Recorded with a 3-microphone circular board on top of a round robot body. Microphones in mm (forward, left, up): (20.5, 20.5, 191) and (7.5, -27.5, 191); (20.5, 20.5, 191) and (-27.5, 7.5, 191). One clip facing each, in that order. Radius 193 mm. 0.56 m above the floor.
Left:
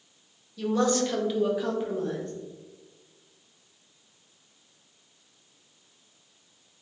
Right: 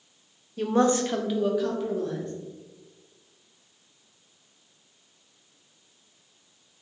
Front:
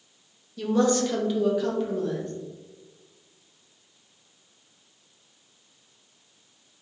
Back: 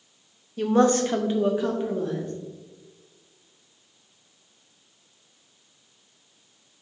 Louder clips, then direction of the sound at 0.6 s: Right 2 dB, back 3 dB; 130° right.